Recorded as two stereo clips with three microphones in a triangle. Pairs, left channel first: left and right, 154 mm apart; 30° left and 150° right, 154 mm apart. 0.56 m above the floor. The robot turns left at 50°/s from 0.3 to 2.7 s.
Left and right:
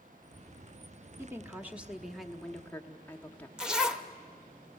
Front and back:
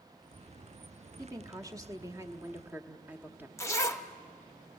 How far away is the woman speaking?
About 1.1 m.